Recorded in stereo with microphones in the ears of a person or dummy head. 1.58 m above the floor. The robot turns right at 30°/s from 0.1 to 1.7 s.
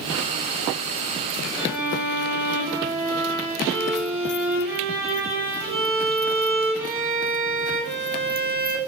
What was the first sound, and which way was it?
A violin, 20° right (ahead or behind).